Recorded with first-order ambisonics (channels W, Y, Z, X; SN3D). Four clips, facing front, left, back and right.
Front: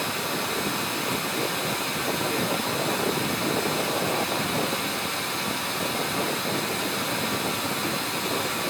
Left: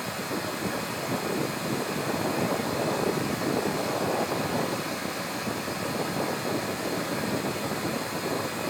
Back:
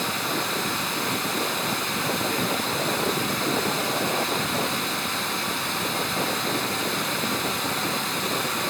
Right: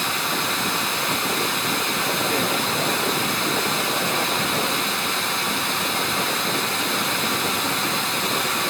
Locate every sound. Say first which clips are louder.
0.0 s running water: right 8 dB, back 2 dB; 105° right, 3 m